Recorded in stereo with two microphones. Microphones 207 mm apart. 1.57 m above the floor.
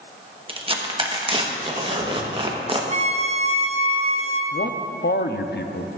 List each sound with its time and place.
0.5 s tearing paper: 25° right (ahead or behind), 1.0 m
2.9 s a violin: 30° right (ahead or behind), 0.7 m
4.5 s a man speaking: 55° left (ahead or behind), 0.5 m